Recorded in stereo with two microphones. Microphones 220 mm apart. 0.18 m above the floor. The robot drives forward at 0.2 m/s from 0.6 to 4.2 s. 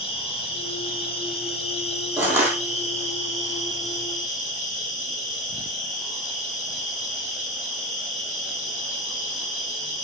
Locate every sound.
0.0 s an insect: 25° left (ahead or behind), 2 m; by 10.1 s 35° left (ahead or behind), 1.6 m
2.2 s crushing: 10° right (ahead or behind), 1.3 m